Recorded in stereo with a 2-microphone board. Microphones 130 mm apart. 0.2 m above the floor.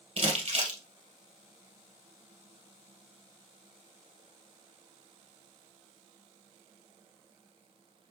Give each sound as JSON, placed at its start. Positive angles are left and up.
{"t": 0.2, "sound": "crumpling", "side_deg": -50, "distance_m": 2.0}